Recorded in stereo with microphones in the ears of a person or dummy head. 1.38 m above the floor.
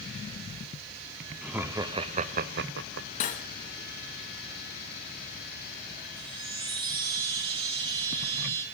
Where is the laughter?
Centre (ahead or behind), 0.7 m; by 3.1 s 60° right (ahead or behind), 0.7 m.